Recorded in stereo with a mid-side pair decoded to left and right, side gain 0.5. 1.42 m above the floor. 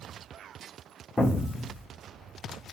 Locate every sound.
1.2 s an explosion: 20° left, 1.1 m